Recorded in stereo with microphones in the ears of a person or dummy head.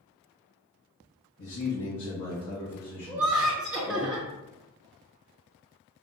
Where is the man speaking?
60° left (ahead or behind), 1.3 m; by 4.1 s 50° left (ahead or behind), 1.7 m.